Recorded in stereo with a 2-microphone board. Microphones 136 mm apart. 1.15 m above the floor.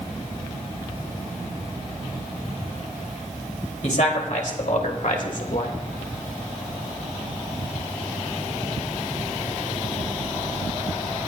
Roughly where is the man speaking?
Left.